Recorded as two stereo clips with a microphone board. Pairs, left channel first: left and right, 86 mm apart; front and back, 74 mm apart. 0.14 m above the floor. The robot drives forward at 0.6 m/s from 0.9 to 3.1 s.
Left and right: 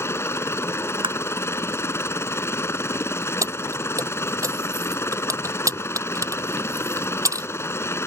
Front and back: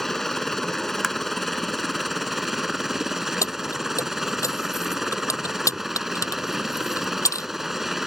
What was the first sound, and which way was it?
A helicopter, 80° left.